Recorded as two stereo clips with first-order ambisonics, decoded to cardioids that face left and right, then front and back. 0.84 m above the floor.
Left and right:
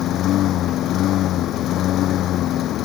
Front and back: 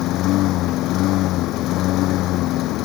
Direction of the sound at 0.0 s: 40° left.